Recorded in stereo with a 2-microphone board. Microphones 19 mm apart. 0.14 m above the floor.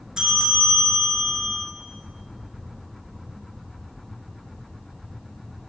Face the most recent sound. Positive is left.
turn(degrees=-35)  # may be behind; listen again after turning